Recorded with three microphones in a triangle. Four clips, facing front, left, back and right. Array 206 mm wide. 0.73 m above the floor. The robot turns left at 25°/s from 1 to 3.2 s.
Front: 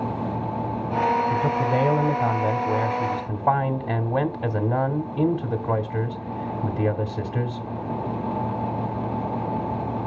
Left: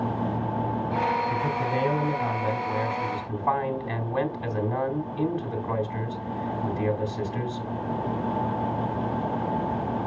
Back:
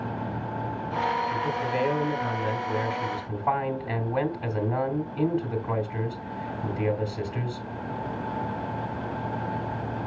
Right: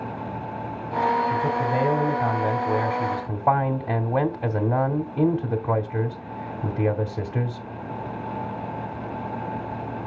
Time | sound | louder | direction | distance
1.3 | a man speaking | right 3 dB, front 5 dB | 10° right | 2.0 m